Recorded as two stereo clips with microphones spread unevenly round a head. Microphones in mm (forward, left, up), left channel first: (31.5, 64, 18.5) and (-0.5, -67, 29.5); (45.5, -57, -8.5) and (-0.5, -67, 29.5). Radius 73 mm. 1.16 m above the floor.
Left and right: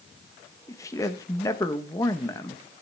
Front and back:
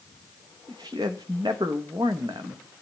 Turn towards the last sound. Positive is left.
turn(degrees=145)